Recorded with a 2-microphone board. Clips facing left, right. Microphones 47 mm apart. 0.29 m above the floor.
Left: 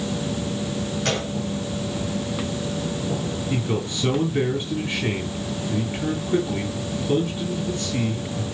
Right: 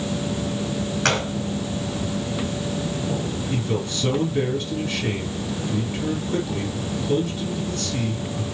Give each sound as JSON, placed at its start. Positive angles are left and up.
{"t": 1.1, "sound": "a gunshot", "side_deg": -60, "distance_m": 2.5}
{"t": 3.5, "sound": "a man speaking", "side_deg": 15, "distance_m": 4.0}